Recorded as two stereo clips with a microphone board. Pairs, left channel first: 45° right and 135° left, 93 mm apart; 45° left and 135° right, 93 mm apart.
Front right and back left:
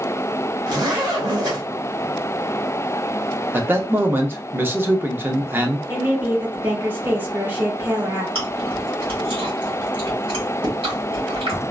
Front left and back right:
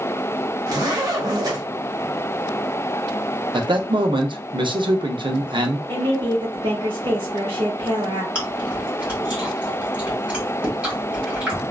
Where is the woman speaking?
160° right, 1.9 m.